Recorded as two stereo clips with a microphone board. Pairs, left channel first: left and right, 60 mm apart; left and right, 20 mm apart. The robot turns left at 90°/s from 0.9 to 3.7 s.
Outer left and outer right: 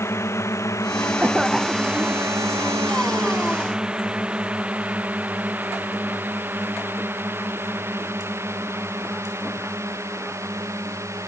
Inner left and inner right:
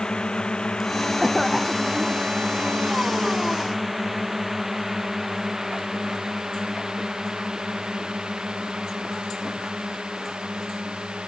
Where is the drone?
50° left (ahead or behind); by 11.3 s 50° right (ahead or behind).